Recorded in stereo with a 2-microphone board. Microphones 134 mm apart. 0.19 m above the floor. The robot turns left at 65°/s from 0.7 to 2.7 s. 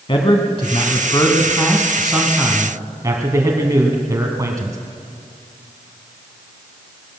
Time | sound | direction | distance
0.1 | a man speaking | 90° left | 1.3 m